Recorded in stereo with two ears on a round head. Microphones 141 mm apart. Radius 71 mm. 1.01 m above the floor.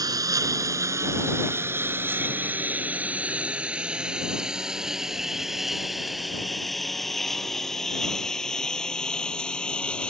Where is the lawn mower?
25° right (ahead or behind); by 10.1 s 5° left (ahead or behind).